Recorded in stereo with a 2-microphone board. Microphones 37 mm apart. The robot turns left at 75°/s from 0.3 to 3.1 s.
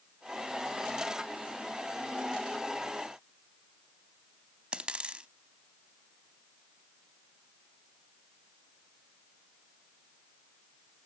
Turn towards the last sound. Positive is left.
turn(degrees=-30)  # may be behind; listen again after turning